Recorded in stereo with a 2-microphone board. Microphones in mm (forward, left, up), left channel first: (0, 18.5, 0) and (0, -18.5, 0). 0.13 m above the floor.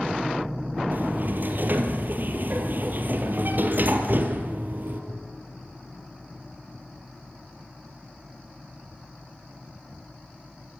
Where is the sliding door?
55° right (ahead or behind), 3.5 m.